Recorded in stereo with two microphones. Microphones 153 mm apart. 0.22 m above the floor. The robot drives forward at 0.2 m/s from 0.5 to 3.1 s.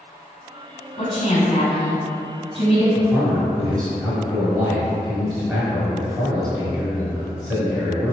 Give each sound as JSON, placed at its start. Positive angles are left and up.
{"t": 1.0, "sound": "a woman speaking", "side_deg": 40, "distance_m": 1.6}
{"t": 3.0, "sound": "a man speaking", "side_deg": -20, "distance_m": 1.0}